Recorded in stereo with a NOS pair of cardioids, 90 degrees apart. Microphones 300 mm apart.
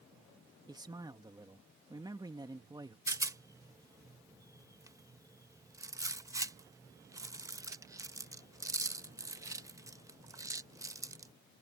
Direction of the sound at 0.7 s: 15° right.